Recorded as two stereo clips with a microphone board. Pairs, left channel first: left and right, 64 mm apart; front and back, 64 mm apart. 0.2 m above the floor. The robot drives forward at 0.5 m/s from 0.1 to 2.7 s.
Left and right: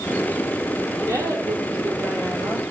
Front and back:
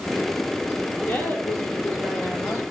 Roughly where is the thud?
I don't hear a thud.